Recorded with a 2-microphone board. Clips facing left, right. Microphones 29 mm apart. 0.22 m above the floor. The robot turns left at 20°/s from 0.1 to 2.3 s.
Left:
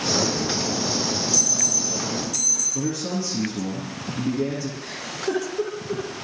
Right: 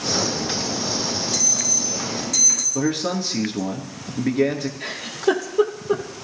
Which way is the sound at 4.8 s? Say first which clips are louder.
Right 6 dB; 70° right (ahead or behind).